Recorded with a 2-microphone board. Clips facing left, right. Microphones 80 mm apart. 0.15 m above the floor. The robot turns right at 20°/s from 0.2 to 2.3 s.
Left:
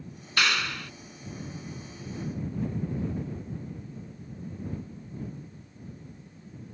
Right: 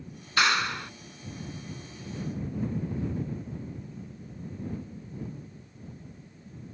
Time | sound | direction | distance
0.4 | a clap | 25° right (ahead or behind) | ?